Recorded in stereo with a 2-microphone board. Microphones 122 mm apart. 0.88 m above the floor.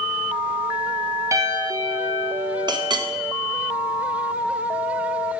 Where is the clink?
35° right (ahead or behind), 0.5 m.